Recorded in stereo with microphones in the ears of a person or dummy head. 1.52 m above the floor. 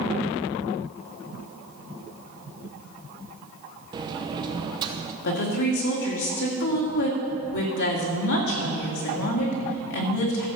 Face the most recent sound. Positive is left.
turn(degrees=65)  # may be behind; listen again after turning